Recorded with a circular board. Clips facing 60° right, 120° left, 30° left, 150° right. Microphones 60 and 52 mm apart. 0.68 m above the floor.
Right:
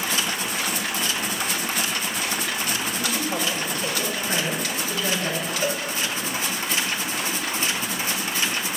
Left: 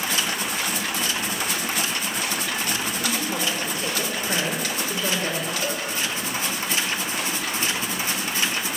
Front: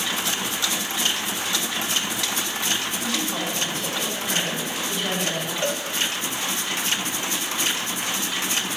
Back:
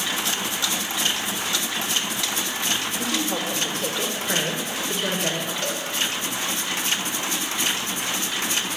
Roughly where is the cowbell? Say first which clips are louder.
Right 2 dB, front 3 dB; ahead.